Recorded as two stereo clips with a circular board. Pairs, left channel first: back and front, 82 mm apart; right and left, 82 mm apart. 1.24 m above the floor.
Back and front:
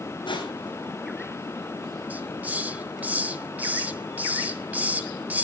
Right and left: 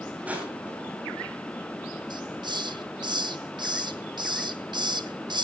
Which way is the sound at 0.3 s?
160° left.